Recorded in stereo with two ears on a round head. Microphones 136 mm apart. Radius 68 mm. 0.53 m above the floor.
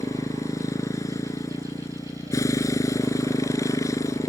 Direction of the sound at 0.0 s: 20° left (ahead or behind).